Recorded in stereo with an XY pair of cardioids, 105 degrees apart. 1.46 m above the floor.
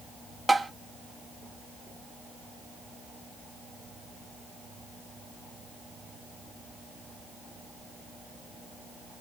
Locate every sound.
0.5 s tapping: 20° right, 0.5 m